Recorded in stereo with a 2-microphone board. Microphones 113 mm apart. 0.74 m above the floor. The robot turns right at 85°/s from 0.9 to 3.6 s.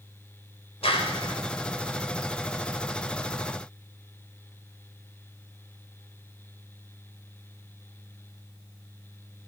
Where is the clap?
75° left, 3 m; by 1.4 s 115° left, 3 m.